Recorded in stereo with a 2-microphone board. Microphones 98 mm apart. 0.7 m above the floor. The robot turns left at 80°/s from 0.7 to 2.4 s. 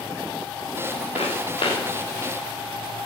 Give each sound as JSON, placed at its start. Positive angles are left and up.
{"t": 1.1, "sound": "footsteps", "side_deg": 80, "distance_m": 5.5}